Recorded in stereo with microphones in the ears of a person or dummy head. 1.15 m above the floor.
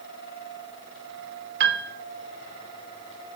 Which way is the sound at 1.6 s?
60° right (ahead or behind).